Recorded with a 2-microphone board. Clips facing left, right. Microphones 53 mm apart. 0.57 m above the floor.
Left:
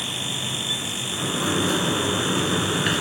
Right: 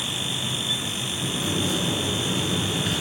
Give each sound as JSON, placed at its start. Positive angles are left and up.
{"t": 1.1, "sound": "a sliding door", "side_deg": 65, "distance_m": 1.3}